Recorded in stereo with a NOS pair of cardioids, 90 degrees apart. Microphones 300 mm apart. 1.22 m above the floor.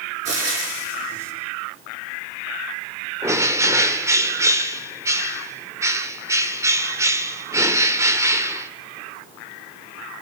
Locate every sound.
0.2 s frying: 50° right, 9 m
3.2 s a bird: 10° right, 2 m